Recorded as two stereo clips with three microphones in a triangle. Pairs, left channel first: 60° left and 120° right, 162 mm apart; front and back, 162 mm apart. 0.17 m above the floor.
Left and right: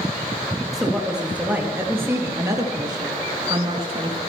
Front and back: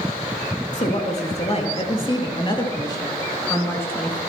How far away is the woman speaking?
About 3.5 m.